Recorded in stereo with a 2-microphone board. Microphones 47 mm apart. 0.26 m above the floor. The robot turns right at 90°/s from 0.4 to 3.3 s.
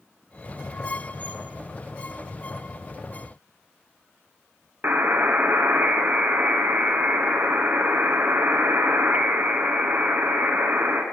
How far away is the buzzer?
About 1.5 m.